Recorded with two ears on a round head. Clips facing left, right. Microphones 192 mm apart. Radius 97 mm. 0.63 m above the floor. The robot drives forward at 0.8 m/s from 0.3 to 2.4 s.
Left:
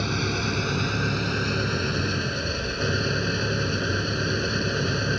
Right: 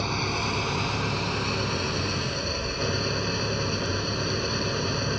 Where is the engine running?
15° left (ahead or behind); by 5.2 s 10° left (ahead or behind).